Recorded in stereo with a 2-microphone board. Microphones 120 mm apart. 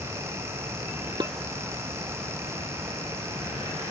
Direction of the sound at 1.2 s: 40° right (ahead or behind).